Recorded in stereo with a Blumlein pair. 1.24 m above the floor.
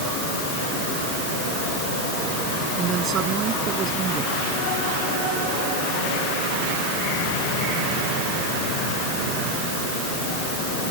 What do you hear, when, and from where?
2.8 s a woman speaking: 25° right